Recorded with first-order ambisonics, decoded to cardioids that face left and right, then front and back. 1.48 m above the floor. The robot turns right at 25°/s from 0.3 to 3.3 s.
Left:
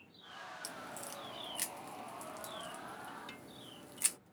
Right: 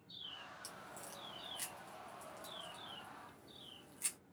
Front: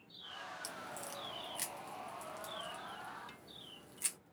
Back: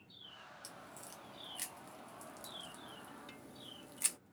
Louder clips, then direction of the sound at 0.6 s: Left 6 dB, front 7 dB; 50° left.